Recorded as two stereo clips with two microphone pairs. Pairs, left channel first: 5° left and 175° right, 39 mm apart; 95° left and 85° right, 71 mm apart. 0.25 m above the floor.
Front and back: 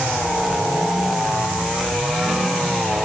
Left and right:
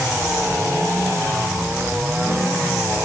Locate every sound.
Only background noise.